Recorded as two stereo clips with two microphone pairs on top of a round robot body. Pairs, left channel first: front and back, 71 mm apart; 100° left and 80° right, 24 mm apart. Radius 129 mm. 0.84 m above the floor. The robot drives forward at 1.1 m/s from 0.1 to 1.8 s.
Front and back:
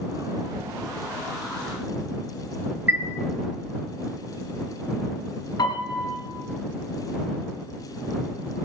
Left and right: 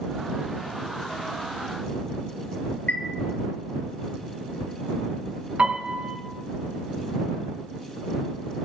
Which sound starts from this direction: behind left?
A chime, at 2.9 s.